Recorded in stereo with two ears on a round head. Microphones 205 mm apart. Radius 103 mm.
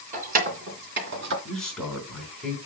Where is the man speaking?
5° left (ahead or behind), 3.5 m.